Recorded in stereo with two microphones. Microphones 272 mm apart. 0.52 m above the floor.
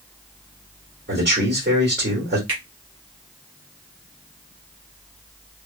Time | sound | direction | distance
1.1 | a man speaking | 40° right (ahead or behind) | 1.6 m
2.5 | a finger snap | 45° right (ahead or behind) | 1.8 m